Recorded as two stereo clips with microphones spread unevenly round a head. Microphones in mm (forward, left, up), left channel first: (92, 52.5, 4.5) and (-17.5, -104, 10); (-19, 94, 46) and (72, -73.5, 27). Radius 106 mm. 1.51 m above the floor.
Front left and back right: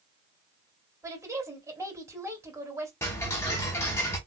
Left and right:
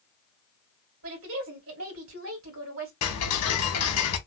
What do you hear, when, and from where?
1.0 s a woman speaking: 50° right, 2.5 m
3.0 s ticking: 135° left, 0.9 m